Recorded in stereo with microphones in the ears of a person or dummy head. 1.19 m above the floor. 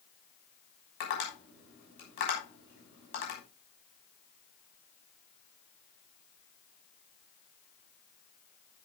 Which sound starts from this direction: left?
Tapping, at 1.0 s.